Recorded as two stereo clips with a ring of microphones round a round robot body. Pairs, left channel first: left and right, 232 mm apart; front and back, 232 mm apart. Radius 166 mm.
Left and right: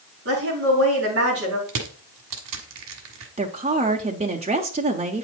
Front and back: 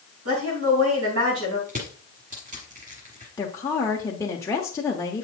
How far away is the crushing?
About 1.4 m.